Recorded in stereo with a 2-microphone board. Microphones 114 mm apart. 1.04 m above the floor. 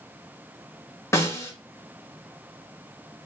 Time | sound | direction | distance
1.1 | a snare drum | 25° left (ahead or behind) | 2 m